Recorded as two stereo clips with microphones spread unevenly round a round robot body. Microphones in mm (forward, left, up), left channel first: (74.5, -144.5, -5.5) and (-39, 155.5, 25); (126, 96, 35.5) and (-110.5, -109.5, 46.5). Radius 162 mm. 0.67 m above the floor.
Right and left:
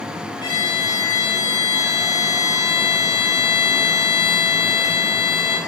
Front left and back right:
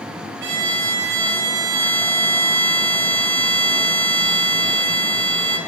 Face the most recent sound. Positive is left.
turn(degrees=-140)